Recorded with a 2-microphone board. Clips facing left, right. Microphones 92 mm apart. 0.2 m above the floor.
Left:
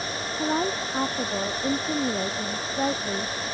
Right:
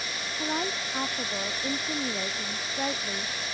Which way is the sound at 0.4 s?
20° left (ahead or behind).